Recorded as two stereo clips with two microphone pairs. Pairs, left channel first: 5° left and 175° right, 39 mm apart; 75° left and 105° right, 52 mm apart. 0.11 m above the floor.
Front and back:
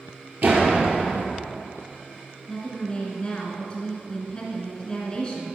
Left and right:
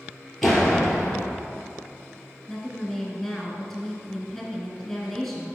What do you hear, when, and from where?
0.4 s a door slam: 160° left, 1.9 m
2.5 s a woman speaking: 5° right, 1.5 m